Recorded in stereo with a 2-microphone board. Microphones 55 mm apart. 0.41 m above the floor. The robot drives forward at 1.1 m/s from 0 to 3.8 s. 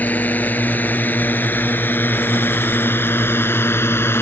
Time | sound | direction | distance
0.0 | a drone | 30° left (ahead or behind) | ?